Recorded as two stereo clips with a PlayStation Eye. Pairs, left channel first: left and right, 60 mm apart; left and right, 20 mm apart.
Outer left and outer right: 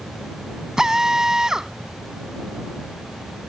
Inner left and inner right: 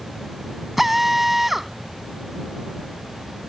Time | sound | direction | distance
0.8 | a drill | 10° right (ahead or behind) | ?